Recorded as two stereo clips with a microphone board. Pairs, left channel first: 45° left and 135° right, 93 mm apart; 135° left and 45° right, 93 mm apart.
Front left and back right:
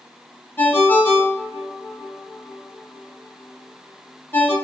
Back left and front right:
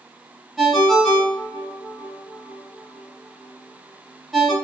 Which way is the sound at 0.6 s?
45° left.